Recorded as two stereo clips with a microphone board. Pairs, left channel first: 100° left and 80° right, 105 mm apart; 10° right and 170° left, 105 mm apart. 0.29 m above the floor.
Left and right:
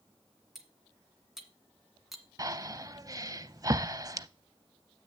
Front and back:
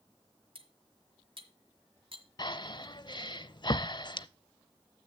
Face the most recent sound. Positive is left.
turn(degrees=-40)